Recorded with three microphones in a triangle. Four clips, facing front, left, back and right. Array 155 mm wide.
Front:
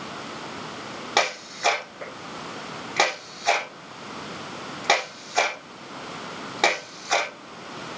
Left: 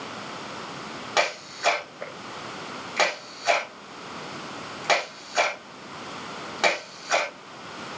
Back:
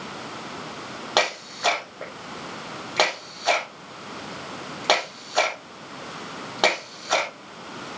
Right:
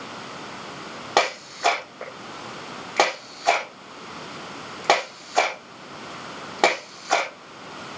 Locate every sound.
1.2 s a camera shutter: 105° right, 4 m